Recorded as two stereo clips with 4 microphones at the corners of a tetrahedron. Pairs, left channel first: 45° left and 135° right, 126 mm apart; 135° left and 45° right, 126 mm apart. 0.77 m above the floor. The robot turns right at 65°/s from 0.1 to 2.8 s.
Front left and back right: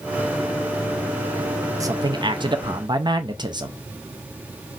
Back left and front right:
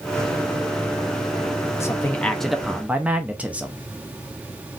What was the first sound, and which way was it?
A man speaking, straight behind.